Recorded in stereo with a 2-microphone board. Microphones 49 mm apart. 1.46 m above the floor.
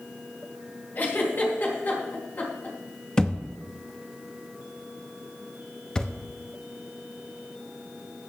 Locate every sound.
0.9 s a giggle: 40° left (ahead or behind), 3 m
3.2 s a thud: 15° left (ahead or behind), 0.8 m